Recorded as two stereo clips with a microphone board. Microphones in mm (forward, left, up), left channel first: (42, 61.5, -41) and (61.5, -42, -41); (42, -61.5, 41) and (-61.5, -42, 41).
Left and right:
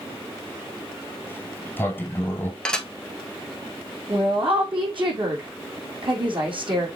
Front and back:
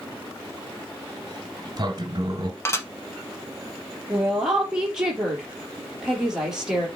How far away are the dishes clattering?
About 1.0 m.